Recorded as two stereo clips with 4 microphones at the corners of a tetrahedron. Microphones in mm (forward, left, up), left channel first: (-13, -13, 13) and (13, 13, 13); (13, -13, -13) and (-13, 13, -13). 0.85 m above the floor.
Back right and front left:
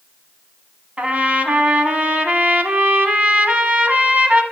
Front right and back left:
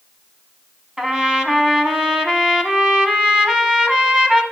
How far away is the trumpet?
About 0.9 m.